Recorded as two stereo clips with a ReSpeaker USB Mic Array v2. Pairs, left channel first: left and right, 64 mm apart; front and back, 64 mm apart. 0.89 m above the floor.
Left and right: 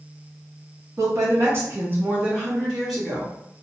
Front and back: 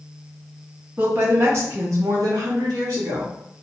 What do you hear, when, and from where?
1.0 s a woman speaking: 125° right, 1.2 m; by 3.4 s 170° left, 1.2 m